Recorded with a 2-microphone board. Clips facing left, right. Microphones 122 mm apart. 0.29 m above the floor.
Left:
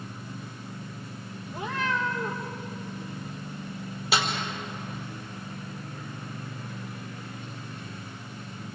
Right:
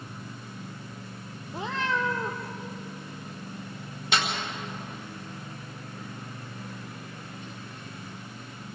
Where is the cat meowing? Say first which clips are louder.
Even; 25° right (ahead or behind), 2.5 m.